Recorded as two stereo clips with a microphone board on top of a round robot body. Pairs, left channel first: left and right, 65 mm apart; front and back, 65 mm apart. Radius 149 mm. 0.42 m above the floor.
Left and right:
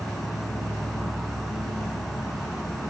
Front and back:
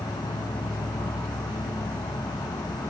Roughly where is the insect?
Ahead.